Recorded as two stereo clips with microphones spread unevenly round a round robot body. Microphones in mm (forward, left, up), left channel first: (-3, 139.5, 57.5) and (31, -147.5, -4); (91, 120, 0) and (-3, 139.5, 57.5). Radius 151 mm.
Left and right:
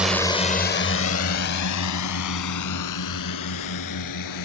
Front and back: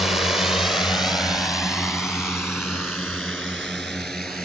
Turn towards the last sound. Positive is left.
turn(degrees=75)